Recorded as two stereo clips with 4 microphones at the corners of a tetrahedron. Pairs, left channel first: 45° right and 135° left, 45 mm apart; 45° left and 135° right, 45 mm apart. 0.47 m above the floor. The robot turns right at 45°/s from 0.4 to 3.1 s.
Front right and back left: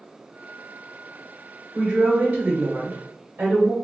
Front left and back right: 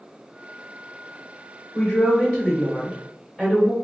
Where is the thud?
I don't hear a thud.